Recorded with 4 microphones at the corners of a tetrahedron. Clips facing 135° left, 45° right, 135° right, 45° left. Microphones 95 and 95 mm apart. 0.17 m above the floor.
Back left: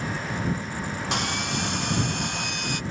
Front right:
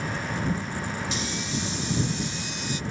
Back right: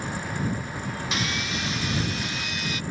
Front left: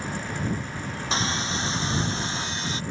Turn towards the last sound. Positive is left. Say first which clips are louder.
# back left 3 dB, front left 4 dB
turn(degrees=105)